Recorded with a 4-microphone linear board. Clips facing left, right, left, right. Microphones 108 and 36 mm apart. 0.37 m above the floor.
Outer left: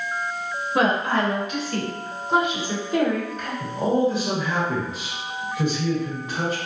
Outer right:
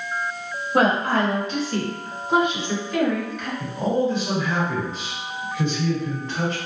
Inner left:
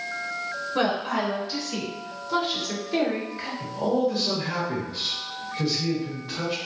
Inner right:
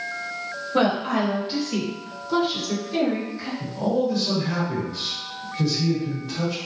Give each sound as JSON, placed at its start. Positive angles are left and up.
{"t": 0.7, "sound": "a woman speaking", "side_deg": -45, "distance_m": 1.4}
{"t": 3.6, "sound": "a man speaking", "side_deg": 10, "distance_m": 1.0}